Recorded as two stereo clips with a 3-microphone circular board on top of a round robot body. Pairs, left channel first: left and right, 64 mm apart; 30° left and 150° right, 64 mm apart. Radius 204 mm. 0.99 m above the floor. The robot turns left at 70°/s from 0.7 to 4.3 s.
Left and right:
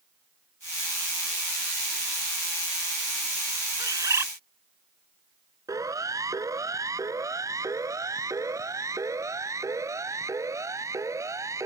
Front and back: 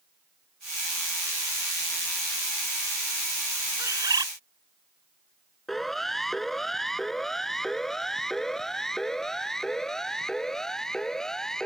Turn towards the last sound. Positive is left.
turn(degrees=-50)